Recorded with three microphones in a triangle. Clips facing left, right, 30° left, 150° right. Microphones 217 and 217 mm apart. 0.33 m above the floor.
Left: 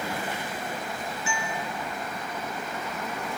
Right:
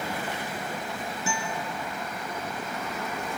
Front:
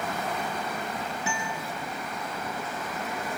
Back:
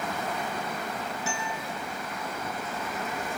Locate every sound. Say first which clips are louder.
1.3 s a guitar: right 1 dB, front 1 dB; 45° right, 3 m